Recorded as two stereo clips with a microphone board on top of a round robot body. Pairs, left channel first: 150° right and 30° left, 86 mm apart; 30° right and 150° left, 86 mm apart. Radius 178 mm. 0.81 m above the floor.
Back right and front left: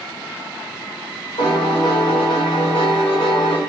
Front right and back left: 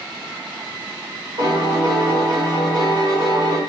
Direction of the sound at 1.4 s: Straight behind.